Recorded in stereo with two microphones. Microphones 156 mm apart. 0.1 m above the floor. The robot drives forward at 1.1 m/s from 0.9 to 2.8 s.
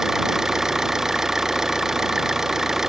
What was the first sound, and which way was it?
An engine running, centre (ahead or behind).